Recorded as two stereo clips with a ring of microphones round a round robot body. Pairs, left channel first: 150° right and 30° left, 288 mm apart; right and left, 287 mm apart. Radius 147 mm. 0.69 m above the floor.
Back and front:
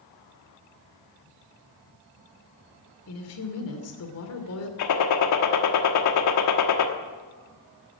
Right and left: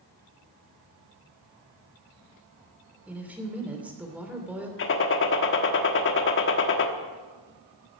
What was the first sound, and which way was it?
A woman speaking, 175° left.